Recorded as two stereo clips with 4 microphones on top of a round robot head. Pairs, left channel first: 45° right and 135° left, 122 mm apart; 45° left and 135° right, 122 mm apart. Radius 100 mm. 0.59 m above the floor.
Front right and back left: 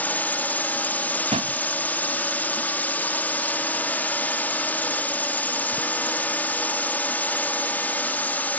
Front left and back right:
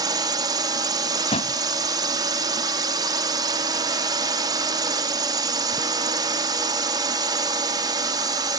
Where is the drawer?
90° left.